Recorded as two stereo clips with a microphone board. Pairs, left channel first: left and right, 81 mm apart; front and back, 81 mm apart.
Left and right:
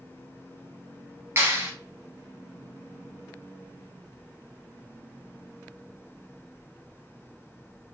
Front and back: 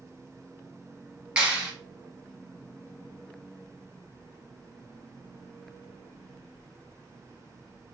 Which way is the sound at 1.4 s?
110° right.